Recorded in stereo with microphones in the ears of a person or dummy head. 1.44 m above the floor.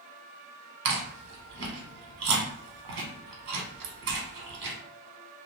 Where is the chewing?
70° right (ahead or behind), 0.9 m.